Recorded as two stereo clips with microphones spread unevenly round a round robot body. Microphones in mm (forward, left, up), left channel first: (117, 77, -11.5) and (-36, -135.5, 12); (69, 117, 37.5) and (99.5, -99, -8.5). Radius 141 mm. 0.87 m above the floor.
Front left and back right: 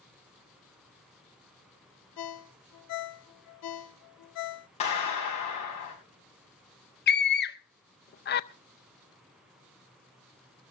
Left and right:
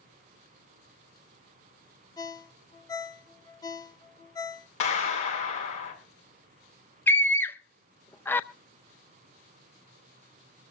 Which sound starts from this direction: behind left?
A clap, at 4.8 s.